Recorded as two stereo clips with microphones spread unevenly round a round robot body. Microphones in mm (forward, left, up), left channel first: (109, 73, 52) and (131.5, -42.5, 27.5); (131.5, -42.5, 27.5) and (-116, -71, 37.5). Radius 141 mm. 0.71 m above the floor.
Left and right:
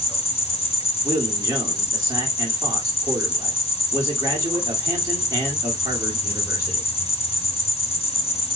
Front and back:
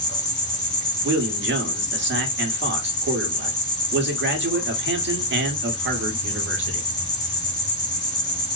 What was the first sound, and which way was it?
An insect, 70° left.